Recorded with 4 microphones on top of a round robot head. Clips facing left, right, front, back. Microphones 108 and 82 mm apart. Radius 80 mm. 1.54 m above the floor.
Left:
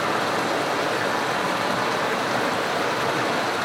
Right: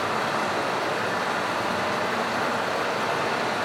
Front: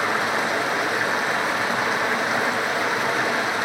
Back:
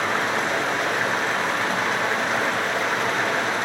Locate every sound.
0.0 s running water: 85° left, 0.8 m